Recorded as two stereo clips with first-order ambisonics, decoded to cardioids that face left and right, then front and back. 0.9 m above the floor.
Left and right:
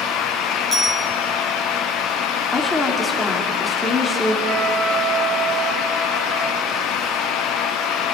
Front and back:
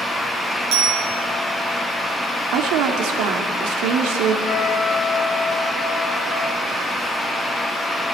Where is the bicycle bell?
175° right, 8.5 m.